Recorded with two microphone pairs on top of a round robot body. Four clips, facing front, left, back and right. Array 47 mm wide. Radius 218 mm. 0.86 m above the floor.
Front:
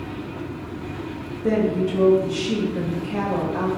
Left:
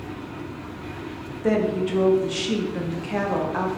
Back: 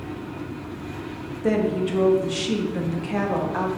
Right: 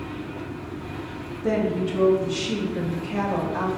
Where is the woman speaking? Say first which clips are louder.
Left 2 dB, front 1 dB; 135° left, 1.4 m.